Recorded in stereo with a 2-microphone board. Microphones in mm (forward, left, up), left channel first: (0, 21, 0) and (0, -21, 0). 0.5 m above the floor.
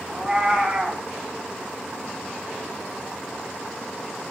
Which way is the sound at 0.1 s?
20° right (ahead or behind).